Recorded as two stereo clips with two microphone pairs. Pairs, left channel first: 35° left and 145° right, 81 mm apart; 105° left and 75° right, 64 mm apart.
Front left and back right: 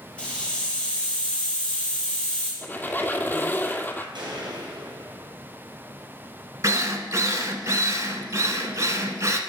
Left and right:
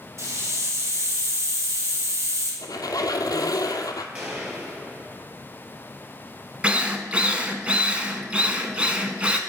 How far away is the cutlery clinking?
I don't hear cutlery clinking.